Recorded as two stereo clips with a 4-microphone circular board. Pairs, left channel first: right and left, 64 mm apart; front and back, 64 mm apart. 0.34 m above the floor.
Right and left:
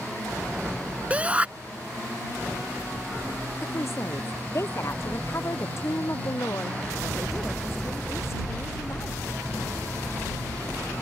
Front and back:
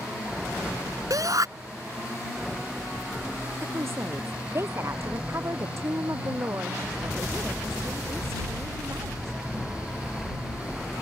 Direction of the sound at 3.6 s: 135° right.